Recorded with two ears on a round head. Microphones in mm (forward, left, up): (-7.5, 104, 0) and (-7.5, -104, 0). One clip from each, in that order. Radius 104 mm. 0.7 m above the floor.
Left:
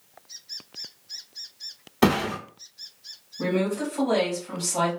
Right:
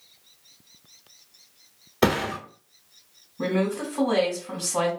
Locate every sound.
2.0 s a thud: 10° left (ahead or behind), 1.1 m
3.4 s a woman speaking: 15° right (ahead or behind), 1.5 m